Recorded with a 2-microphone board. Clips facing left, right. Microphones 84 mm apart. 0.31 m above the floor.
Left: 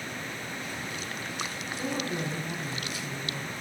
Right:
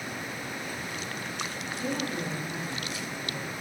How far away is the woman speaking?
About 2 m.